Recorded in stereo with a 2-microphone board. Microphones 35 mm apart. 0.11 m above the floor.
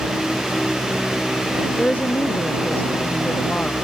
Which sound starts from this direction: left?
A woman speaking, at 1.8 s.